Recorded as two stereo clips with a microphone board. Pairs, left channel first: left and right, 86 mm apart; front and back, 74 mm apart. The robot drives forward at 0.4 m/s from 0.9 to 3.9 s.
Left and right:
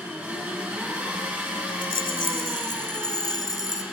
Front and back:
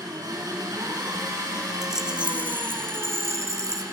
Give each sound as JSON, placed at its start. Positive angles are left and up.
{"t": 0.0, "sound": "an engine running", "azimuth_deg": -155, "distance_m": 8.0}
{"t": 1.8, "sound": "a rattle", "azimuth_deg": 95, "distance_m": 0.8}